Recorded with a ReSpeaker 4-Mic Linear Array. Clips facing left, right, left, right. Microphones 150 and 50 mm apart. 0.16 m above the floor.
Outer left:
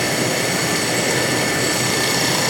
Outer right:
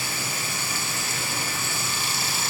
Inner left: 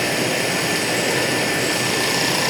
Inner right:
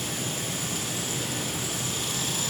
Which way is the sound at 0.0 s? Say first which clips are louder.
Outer left 14 dB, inner left 13 dB; 70° left (ahead or behind).